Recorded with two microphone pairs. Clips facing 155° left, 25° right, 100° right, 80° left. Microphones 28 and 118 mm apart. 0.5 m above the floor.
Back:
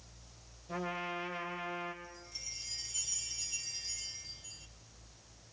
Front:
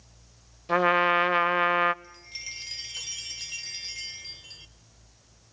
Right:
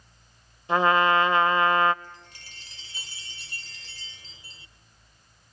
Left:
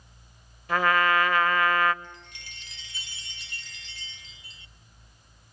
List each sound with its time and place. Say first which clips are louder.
0.7 s a trumpet: front 17 dB, right 3 dB; 30° right, 0.7 m
2.0 s a chime: front 7 dB, left 1 dB; 50° right, 1.2 m